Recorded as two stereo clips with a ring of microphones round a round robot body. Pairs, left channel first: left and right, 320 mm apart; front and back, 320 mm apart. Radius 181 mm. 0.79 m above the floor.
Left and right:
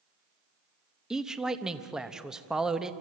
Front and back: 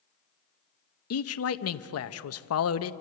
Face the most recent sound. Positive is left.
turn(degrees=0)